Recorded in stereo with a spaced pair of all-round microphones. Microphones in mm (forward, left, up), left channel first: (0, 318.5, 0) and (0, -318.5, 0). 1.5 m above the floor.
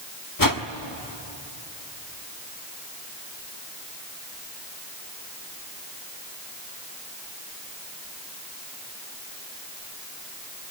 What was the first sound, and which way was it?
A whoosh, 30° left (ahead or behind).